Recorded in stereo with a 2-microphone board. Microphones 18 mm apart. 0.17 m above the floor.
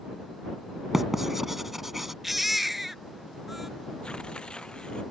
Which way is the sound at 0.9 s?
10° right (ahead or behind).